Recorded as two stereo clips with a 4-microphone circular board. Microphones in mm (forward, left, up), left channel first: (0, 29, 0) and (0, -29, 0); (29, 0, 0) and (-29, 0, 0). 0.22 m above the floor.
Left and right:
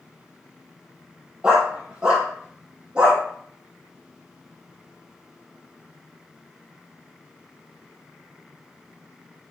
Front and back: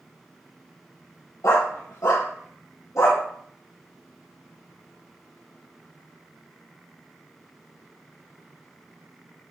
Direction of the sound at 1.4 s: 15° right.